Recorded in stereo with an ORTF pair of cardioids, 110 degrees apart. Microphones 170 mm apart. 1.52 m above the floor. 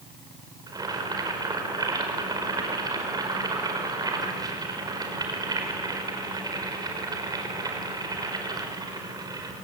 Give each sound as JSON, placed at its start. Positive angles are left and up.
{"t": 0.7, "sound": "boiling", "azimuth_deg": -25, "distance_m": 5.0}